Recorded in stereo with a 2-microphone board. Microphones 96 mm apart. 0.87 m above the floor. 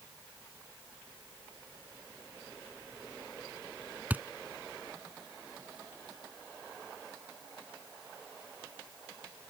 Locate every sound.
4.1 s a thud: 20° right (ahead or behind)